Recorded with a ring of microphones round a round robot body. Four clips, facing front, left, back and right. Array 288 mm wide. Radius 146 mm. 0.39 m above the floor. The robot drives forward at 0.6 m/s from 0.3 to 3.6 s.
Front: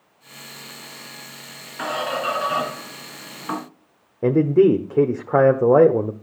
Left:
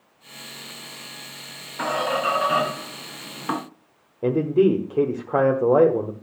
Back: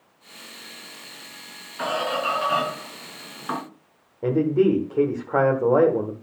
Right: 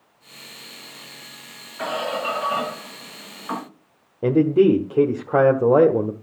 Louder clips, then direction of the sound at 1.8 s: Left 2 dB, even; 75° left.